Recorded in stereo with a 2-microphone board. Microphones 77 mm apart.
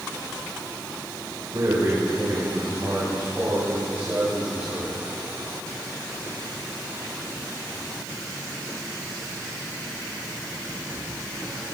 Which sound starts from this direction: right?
A man speaking, at 1.5 s.